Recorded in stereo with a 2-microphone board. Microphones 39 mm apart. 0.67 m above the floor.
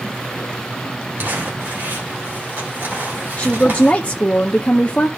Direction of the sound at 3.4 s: 30° left (ahead or behind).